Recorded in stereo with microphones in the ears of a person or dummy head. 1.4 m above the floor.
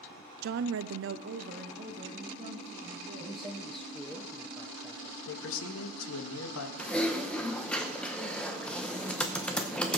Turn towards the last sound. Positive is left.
turn(degrees=5)  # may be behind; listen again after turning